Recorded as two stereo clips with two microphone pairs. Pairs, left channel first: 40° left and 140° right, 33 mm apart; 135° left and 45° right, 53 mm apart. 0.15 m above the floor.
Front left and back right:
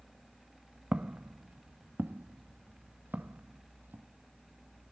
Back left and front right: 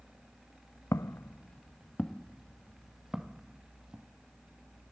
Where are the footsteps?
165° left, 0.6 m; by 4.1 s 120° right, 2 m.